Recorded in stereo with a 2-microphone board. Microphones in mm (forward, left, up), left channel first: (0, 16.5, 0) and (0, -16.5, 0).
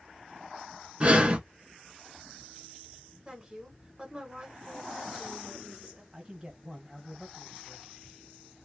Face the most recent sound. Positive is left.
turn(degrees=-20)  # may be behind; listen again after turning